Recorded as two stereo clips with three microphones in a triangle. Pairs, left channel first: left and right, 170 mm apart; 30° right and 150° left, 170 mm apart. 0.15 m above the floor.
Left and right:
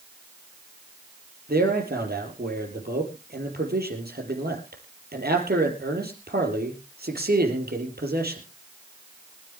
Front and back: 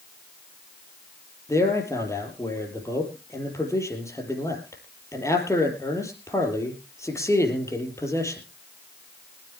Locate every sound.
1.5 s a man speaking: 100° right, 4.5 m